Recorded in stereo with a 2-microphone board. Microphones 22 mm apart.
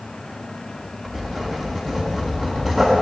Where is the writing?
Centre (ahead or behind), 2.5 m.